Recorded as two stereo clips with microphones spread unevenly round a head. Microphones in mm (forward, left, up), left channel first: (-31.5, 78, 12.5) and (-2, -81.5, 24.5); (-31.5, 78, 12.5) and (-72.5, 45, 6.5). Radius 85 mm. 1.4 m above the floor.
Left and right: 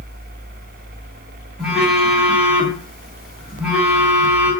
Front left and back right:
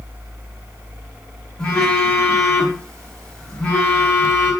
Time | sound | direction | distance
1.6 | a phone buzzing | straight ahead | 1.5 m